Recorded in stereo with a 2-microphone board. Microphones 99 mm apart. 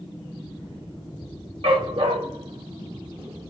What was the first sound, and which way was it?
A dog barking, 75° right (ahead or behind).